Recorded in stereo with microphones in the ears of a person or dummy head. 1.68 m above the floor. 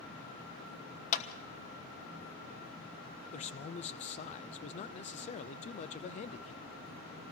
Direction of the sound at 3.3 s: 35° left (ahead or behind).